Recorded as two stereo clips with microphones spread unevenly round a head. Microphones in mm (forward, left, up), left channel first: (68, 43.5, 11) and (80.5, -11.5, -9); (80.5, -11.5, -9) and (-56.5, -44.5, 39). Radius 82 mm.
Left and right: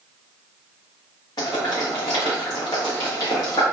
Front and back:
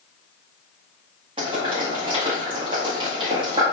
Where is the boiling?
135° left, 0.9 m.